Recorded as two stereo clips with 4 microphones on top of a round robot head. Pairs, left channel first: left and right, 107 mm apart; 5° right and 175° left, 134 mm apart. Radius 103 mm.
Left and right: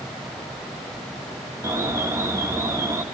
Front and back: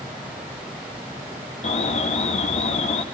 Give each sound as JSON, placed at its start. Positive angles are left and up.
{"t": 1.6, "sound": "an alarm", "azimuth_deg": -30, "distance_m": 1.2}